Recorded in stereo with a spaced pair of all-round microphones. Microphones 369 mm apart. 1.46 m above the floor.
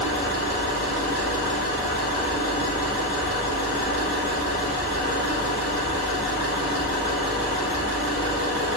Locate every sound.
0.0 s an engine running: 40° left (ahead or behind), 1.5 m